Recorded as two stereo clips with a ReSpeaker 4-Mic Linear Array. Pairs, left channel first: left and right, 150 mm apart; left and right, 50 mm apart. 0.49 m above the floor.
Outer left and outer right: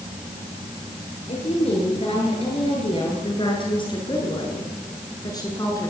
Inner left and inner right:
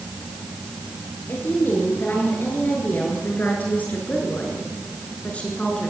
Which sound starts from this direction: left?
A woman speaking, at 1.3 s.